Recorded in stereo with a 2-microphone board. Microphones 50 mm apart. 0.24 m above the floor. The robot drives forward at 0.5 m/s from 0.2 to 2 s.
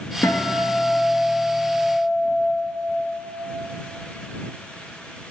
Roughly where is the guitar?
Left.